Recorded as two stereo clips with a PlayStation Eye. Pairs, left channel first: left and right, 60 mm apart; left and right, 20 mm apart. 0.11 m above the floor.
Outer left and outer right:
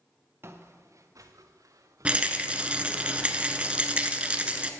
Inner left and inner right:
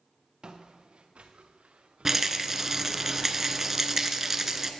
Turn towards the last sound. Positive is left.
turn(degrees=-20)  # may be behind; listen again after turning